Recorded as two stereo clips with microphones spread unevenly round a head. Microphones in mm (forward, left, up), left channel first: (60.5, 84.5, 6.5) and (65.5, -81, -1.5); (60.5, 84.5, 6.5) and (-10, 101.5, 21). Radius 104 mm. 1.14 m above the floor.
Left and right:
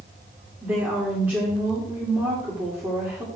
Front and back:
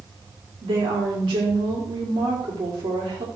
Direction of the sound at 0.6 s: 170° right.